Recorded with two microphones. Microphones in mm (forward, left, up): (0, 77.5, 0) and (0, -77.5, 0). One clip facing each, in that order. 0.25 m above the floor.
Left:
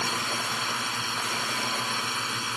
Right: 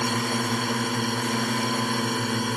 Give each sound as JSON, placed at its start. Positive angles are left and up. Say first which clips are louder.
{"t": 0.0, "sound": "a drone", "louder": "right 7 dB", "side_deg": -50}